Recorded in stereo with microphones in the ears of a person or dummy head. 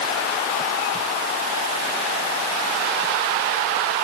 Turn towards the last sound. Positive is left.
No sound to turn to.